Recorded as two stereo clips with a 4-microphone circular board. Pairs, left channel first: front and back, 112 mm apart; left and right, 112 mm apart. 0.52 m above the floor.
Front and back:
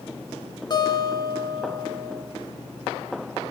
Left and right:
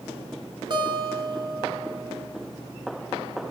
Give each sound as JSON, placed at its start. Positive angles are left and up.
{"t": 0.7, "sound": "a guitar", "azimuth_deg": -45, "distance_m": 1.1}